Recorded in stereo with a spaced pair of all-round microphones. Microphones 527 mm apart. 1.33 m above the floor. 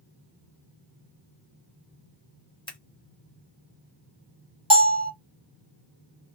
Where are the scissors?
10° left (ahead or behind), 1.5 m.